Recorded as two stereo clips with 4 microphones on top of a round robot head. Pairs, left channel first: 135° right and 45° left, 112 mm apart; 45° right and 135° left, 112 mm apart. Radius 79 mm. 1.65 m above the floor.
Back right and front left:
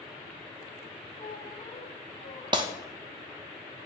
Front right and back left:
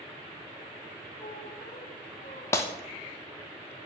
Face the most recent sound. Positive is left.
turn(degrees=10)